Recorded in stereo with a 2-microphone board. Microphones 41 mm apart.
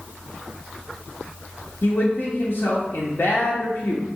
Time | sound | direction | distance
1.8 | a man speaking | 60° left (ahead or behind) | 1.0 m